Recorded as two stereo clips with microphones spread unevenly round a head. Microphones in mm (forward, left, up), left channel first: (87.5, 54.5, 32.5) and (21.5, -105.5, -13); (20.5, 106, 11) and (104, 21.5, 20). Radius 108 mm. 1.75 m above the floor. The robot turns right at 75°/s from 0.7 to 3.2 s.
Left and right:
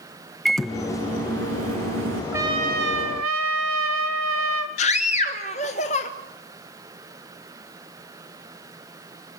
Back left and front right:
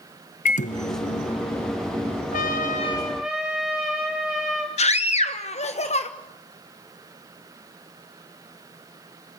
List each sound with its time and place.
0.5 s a microwave: 150° left, 0.6 m; by 2.2 s 95° right, 0.6 m
2.3 s a trumpet: 165° left, 1.7 m; by 4.7 s 130° right, 1.7 m
4.8 s a scream: 115° left, 1.3 m